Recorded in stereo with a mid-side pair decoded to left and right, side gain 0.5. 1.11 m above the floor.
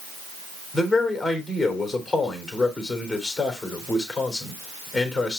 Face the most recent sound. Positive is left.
turn(degrees=15)